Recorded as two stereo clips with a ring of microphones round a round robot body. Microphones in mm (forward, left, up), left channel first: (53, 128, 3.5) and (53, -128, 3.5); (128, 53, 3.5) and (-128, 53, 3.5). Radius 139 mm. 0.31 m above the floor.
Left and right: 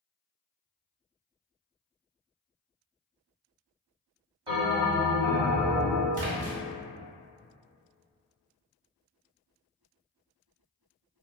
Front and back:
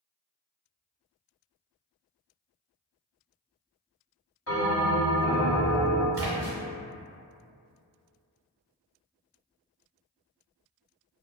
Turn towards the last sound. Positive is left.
turn(degrees=-110)